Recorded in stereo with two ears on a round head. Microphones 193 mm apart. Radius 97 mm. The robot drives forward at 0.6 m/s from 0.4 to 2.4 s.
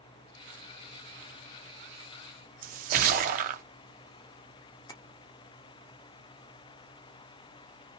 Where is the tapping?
15° left (ahead or behind), 0.5 m.